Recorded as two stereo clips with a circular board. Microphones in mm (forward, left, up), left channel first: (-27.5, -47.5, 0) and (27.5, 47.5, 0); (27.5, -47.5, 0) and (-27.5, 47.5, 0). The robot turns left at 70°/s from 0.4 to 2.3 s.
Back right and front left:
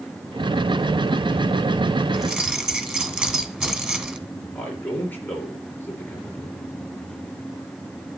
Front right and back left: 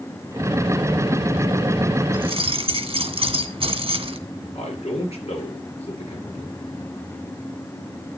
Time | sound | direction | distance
2.1 | keys jangling | 150° left | 1.7 m
4.5 | a man speaking | 45° right | 5 m